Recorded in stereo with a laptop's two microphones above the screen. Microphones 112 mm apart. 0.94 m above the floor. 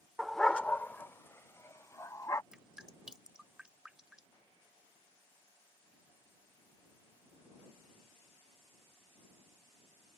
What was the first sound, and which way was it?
A dog barking, 5° right (ahead or behind).